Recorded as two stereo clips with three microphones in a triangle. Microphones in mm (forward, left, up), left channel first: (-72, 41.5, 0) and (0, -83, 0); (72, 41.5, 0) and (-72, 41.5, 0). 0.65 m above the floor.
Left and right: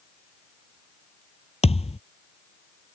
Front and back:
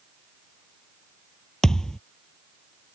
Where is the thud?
85° left.